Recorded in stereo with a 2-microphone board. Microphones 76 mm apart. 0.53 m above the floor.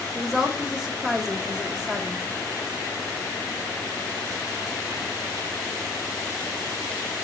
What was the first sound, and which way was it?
A woman speaking, 5° right (ahead or behind).